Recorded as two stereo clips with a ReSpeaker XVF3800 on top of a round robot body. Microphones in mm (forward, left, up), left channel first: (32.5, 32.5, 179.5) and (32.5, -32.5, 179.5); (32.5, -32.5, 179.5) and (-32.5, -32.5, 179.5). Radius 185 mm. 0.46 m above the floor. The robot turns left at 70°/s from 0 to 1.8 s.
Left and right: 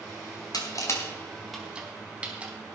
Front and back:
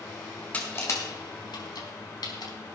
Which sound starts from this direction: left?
Crushing, at 0.5 s.